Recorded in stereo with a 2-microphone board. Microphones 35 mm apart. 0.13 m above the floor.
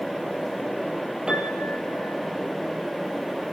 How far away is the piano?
About 4.5 m.